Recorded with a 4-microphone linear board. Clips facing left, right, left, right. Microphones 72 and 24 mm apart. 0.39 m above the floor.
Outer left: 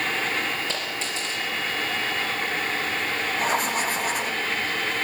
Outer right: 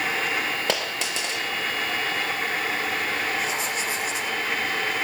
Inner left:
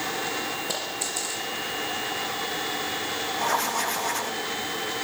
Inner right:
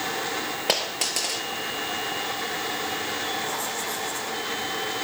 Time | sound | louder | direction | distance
0.7 | a dropped coin | outer right 3 dB, inner right 5 dB | 75° right (ahead or behind) | 4 m
3.4 | writing | outer left 3 dB, inner left 4 dB | 50° left (ahead or behind) | 7 m